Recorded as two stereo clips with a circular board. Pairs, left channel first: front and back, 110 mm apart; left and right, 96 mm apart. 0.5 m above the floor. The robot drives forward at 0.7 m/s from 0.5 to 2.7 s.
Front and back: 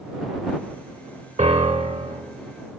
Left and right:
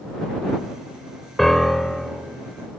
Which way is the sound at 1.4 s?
Straight behind.